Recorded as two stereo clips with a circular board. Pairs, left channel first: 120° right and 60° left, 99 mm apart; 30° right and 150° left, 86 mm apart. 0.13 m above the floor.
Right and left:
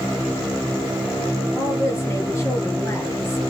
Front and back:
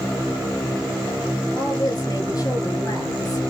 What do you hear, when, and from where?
1.6 s a woman speaking: 65° right, 2.5 m